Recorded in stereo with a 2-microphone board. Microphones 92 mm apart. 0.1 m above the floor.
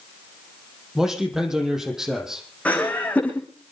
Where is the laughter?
15° left (ahead or behind), 8 m.